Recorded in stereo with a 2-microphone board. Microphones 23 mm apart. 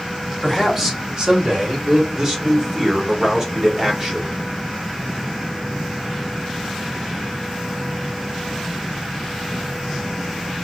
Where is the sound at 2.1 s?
25° right (ahead or behind), 1.4 m.